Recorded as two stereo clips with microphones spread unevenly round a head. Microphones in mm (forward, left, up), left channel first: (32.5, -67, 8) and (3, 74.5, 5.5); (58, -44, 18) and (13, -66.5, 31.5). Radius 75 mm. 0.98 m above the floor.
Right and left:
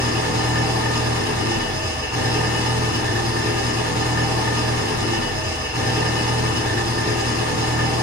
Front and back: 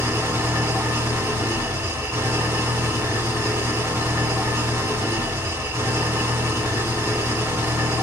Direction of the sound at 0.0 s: 175° right.